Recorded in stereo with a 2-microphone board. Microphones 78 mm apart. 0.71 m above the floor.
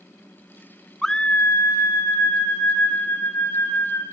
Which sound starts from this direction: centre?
A scream, at 1.0 s.